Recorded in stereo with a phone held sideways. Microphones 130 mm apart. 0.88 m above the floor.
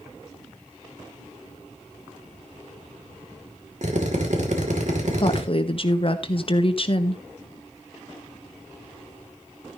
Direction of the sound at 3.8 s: 65° right (ahead or behind).